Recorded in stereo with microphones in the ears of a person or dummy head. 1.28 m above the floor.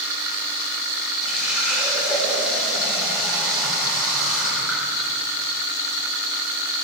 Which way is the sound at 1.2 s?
Centre (ahead or behind).